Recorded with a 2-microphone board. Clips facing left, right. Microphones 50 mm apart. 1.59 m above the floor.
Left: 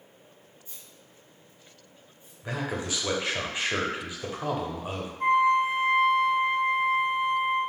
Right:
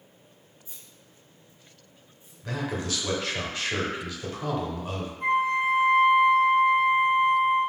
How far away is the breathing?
No breathing in this recording.